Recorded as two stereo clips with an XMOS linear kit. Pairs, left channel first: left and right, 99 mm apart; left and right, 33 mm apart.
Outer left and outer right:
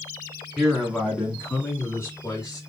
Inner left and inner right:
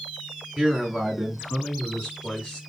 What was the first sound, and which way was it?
A man speaking, 5° right (ahead or behind).